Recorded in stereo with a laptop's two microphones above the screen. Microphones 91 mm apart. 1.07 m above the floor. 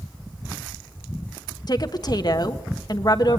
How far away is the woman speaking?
About 1.2 m.